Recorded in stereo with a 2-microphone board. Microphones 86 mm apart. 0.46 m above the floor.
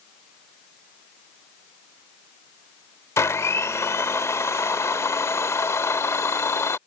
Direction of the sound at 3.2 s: 35° left (ahead or behind).